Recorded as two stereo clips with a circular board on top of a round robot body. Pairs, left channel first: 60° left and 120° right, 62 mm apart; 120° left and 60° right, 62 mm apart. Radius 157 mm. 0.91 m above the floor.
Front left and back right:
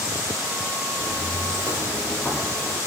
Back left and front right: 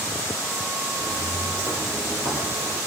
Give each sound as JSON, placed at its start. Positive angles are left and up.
{"t": 1.0, "sound": "footsteps", "azimuth_deg": 85, "distance_m": 1.4}